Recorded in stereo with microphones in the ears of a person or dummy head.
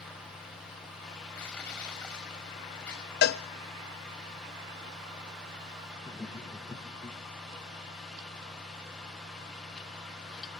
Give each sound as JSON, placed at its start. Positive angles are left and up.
{"t": 1.4, "sound": "crushing", "side_deg": 10, "distance_m": 6.0}
{"t": 3.2, "sound": "a cowbell", "side_deg": 55, "distance_m": 0.5}
{"t": 6.0, "sound": "laughter", "side_deg": 15, "distance_m": 0.9}